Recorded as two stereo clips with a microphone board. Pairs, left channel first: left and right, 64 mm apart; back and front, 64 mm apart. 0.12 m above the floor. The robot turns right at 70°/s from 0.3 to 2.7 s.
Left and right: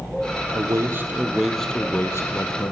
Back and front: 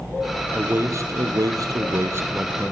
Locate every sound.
0.5 s a man speaking: 65° right, 3 m; by 2.7 s 85° left, 3 m